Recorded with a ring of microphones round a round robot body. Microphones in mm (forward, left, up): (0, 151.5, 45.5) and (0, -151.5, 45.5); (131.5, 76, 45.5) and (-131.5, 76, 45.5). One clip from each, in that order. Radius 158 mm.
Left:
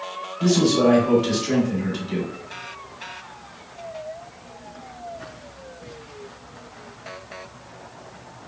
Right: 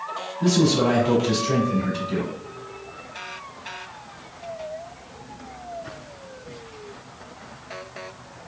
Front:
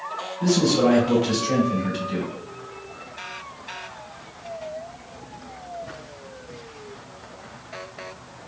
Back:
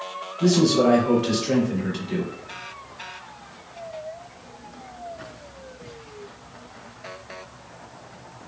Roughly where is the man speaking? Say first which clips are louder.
Left 2 dB, back 1 dB; behind left.